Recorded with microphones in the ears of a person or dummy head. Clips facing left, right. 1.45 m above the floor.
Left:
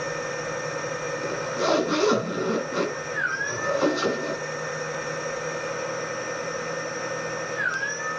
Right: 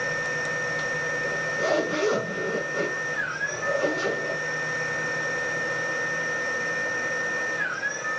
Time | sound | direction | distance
0.0 | a machine running | 70° left (ahead or behind) | 4.5 m
1.2 | a zipper | 75° left (ahead or behind) | 5.5 m